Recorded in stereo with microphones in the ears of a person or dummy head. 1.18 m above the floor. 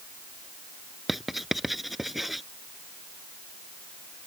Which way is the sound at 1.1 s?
5° right (ahead or behind).